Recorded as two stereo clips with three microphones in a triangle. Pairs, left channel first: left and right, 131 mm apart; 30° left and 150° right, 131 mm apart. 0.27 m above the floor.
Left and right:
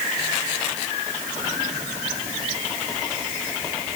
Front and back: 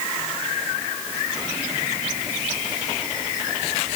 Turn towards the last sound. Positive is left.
No sound to turn to.